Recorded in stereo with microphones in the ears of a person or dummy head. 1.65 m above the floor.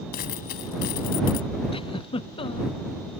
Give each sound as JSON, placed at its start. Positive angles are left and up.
{"t": 0.1, "sound": "a dropped coin", "side_deg": 60}
{"t": 1.7, "sound": "a giggle", "side_deg": 25}